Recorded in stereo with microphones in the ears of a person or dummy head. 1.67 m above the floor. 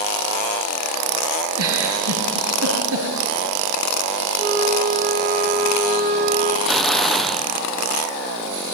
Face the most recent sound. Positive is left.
turn(degrees=0)  # may be behind; listen again after turning